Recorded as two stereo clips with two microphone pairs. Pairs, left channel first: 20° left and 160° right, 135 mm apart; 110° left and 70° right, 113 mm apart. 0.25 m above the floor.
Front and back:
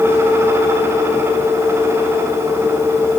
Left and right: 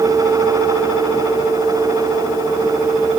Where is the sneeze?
I don't hear a sneeze.